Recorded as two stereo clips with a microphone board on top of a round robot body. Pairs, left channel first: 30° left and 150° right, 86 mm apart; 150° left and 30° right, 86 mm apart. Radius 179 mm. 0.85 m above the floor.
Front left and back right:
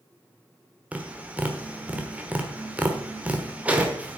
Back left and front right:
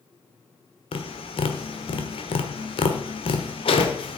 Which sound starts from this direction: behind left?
Tapping, at 0.9 s.